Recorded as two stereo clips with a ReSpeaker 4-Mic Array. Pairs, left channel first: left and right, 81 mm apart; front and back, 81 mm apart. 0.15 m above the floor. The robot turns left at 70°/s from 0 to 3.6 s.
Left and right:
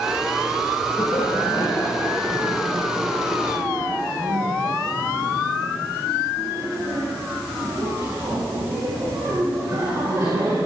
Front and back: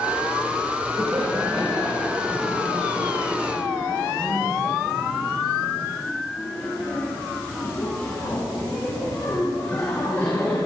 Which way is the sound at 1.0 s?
130° left.